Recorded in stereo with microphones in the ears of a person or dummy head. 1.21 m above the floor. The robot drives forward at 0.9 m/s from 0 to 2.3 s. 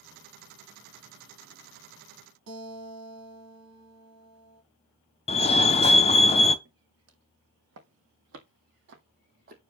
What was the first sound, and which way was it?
A guitar, 70° right (ahead or behind).